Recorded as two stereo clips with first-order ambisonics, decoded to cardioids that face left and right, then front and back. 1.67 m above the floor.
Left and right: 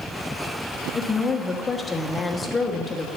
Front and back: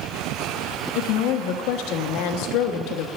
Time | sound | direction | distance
0.9 | a woman speaking | 15° left | 1.2 m